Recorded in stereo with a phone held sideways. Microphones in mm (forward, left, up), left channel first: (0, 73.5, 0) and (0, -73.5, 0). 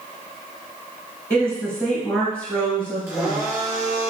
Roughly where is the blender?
Right.